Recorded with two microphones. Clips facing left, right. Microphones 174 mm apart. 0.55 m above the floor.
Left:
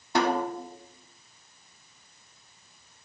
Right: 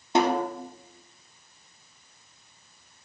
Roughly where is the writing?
I don't hear writing.